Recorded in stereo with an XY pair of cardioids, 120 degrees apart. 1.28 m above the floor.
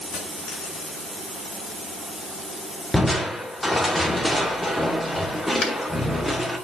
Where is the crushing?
10° left, 1.8 m.